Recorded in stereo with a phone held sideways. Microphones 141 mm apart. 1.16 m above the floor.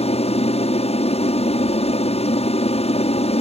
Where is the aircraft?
45° left (ahead or behind).